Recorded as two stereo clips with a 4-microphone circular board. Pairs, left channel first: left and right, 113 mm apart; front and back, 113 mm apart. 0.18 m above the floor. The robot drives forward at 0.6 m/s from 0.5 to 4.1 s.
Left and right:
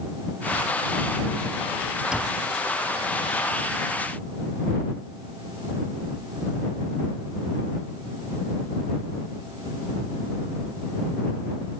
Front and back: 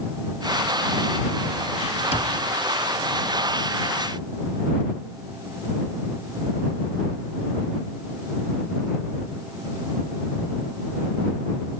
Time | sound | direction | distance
2.1 | a cupboard door | 10° right | 1.7 m